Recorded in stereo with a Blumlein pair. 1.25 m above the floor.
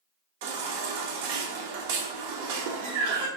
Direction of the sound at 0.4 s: 55° right.